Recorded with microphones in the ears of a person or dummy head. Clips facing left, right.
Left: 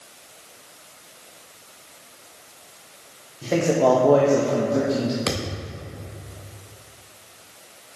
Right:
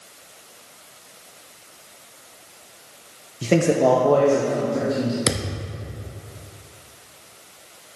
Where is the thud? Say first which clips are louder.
Right 1 dB; 25° right (ahead or behind), 0.5 m.